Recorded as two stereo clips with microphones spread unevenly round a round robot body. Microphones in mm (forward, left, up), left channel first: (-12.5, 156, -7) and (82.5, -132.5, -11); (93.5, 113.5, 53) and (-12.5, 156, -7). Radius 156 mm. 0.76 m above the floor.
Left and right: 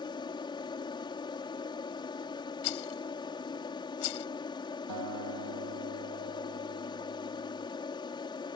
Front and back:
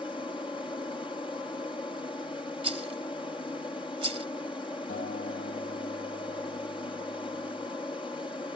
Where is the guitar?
45° right.